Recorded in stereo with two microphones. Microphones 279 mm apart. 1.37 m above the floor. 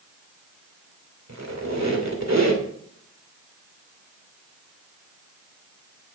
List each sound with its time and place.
1.3 s a squeak: 70° right (ahead or behind), 2.5 m